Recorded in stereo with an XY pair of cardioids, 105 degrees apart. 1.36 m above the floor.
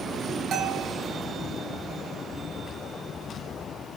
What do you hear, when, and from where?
0.5 s a bell: 65° right, 4 m